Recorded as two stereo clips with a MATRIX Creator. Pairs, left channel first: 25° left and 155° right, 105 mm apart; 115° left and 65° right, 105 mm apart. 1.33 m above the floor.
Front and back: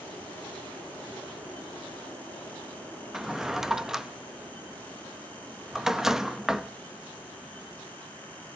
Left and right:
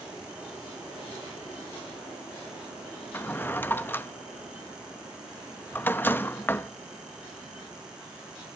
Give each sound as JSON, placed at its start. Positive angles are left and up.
{"t": 3.1, "sound": "a drawer", "azimuth_deg": 125, "distance_m": 0.6}